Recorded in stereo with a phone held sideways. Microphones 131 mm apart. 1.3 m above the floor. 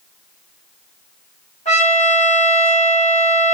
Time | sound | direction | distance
1.6 | a trumpet | 60° left (ahead or behind) | 2 m